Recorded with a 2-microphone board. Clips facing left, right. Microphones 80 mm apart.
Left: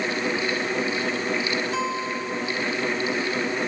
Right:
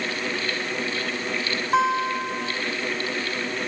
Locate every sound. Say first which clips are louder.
1.7 s a guitar: right 5 dB; 50° right (ahead or behind), 2 m